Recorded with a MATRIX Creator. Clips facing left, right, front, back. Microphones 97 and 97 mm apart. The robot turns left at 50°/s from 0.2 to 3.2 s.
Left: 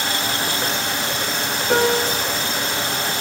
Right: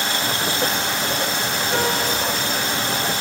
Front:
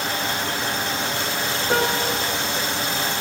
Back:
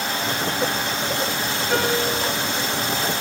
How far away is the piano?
About 9 m.